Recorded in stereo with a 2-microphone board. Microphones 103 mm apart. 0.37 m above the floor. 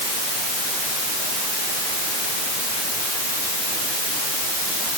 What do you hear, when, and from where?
Only background noise.